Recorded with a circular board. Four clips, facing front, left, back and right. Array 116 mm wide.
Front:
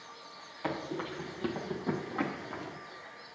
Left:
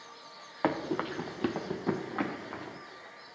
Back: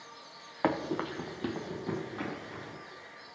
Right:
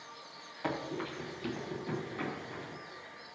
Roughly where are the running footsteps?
Behind left.